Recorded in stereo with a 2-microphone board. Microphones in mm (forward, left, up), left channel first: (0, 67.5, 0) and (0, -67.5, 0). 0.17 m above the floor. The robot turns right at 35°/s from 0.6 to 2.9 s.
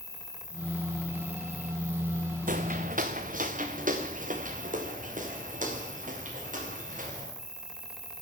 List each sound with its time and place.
0.0 s an insect: 35° right, 1.3 m; by 8.2 s 45° left, 1.3 m
2.5 s footsteps: 85° right, 0.9 m; by 7.3 s 70° right (ahead or behind), 5 m